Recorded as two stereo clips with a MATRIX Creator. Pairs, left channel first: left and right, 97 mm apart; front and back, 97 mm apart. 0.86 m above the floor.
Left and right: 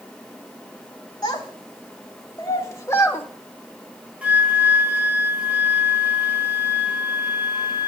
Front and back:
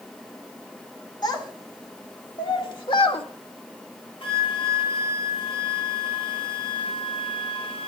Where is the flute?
15° right, 3.5 m.